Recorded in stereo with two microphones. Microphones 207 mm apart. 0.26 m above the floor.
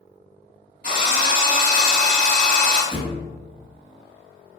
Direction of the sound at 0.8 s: 45° left (ahead or behind).